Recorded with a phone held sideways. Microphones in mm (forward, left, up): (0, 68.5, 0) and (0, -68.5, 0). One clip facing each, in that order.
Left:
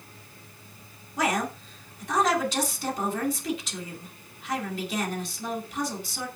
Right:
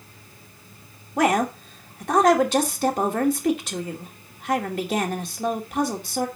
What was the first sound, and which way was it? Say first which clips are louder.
A woman speaking: right 7 dB; 60° right (ahead or behind).